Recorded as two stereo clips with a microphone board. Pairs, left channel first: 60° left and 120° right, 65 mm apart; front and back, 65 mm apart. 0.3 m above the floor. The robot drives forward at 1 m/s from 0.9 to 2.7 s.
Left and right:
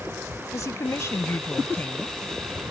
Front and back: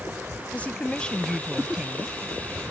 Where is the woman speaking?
60° left; by 2.2 s 125° left.